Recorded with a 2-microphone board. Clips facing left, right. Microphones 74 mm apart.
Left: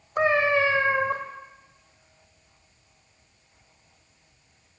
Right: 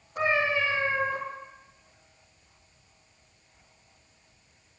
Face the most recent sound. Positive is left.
turn(degrees=55)  # may be behind; listen again after turning